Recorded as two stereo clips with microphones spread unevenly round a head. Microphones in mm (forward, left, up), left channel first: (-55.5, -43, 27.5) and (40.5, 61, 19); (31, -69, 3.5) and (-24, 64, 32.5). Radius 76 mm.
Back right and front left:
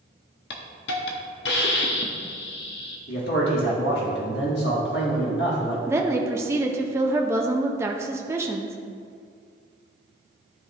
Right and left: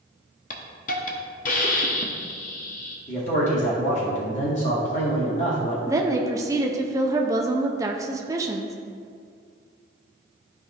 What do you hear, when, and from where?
0.5 s a hiss: 110° right, 1.0 m
3.1 s a man speaking: 115° right, 1.7 m
5.9 s a woman speaking: 115° left, 0.6 m